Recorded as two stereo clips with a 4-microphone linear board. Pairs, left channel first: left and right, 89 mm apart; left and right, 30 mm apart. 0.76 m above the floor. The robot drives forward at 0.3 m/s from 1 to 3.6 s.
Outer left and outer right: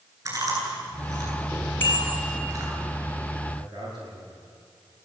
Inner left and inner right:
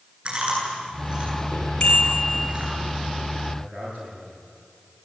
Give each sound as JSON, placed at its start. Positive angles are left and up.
{"t": 0.2, "sound": "chewing", "side_deg": -45, "distance_m": 9.5}
{"t": 1.8, "sound": "a bicycle bell", "side_deg": 20, "distance_m": 5.0}
{"t": 3.6, "sound": "a man speaking", "side_deg": -55, "distance_m": 9.5}